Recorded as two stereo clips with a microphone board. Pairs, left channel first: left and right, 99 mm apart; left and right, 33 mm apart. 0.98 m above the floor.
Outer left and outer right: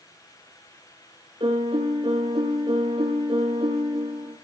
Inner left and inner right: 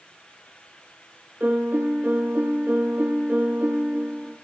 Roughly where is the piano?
Right.